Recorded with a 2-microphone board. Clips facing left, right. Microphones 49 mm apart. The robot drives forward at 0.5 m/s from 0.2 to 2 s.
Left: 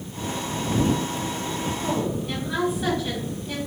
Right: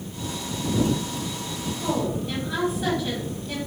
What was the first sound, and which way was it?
A woman speaking, centre (ahead or behind).